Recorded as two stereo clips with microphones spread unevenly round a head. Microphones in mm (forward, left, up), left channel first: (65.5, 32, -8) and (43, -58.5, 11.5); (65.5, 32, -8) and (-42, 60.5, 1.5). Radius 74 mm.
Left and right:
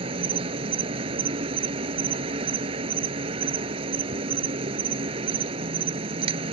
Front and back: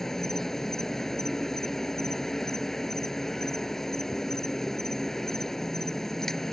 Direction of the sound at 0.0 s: 105° right.